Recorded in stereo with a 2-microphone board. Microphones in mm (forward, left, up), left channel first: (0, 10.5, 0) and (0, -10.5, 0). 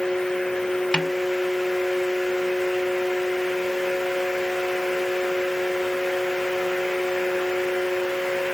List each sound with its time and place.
0.9 s a snare drum: 55° left (ahead or behind)